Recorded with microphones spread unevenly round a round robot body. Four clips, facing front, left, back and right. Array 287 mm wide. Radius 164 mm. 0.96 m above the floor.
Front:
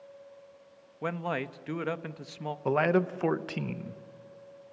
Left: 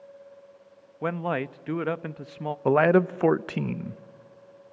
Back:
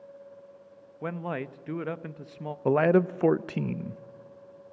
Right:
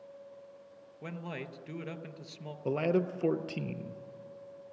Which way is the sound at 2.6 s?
85° left.